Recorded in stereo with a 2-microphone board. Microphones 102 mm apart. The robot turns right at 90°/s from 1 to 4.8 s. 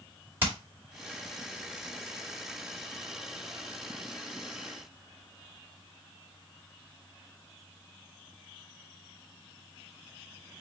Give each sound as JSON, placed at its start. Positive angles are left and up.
{"t": 0.4, "sound": "hammering", "side_deg": -20, "distance_m": 2.0}